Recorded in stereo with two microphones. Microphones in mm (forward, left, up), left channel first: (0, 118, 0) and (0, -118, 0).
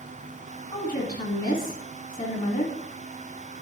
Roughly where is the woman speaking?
Left.